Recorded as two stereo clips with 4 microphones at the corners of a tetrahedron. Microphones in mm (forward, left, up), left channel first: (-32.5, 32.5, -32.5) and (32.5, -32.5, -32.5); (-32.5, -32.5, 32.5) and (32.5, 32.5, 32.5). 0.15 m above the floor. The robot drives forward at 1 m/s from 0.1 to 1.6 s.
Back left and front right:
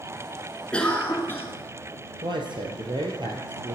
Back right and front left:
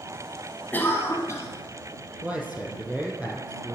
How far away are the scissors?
I don't hear scissors.